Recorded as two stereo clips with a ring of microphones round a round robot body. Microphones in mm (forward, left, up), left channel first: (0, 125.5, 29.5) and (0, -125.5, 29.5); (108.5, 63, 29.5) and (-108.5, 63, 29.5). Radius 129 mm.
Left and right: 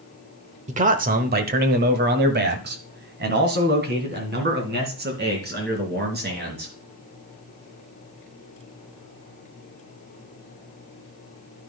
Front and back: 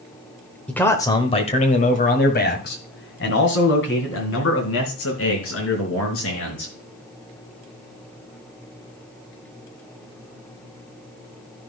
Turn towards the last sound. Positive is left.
turn(degrees=-35)